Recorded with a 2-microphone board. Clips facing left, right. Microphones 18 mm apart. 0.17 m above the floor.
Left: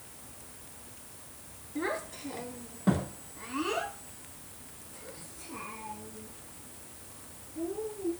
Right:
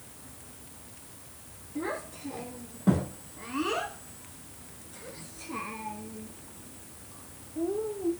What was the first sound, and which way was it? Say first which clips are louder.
A child speaking: left 1 dB; 40° left (ahead or behind).